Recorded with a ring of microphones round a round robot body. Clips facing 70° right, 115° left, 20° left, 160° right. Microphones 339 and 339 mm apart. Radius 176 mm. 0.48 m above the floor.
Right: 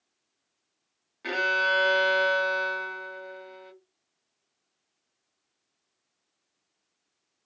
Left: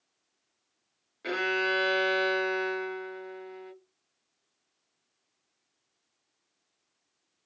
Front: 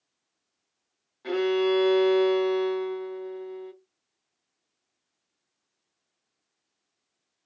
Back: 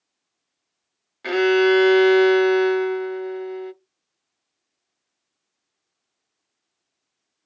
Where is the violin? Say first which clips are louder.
Left 2 dB, back 7 dB; 145° right, 0.7 m.